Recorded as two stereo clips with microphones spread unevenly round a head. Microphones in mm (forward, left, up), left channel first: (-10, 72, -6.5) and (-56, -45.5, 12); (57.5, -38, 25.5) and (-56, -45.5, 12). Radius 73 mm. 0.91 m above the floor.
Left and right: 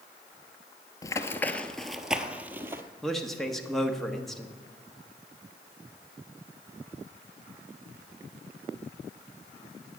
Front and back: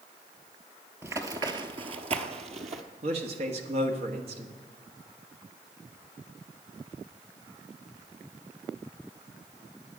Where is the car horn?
I don't hear a car horn.